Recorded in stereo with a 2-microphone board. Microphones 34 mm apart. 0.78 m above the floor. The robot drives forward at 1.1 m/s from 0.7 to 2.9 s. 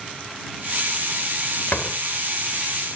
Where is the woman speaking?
I don't hear a woman speaking.